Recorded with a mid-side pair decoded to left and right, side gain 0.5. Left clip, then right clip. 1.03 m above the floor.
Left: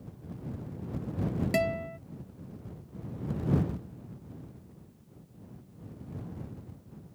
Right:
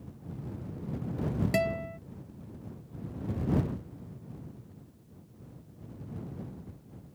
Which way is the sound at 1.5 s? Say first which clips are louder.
Left 1 dB; 5° left.